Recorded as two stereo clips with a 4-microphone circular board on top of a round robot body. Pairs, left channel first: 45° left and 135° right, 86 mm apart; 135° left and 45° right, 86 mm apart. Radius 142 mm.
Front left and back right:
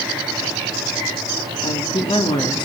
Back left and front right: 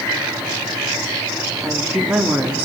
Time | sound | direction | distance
1.6 | a woman speaking | 45° left | 2.5 m